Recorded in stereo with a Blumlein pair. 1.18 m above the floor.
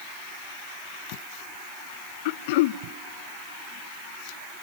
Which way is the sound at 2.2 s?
50° left.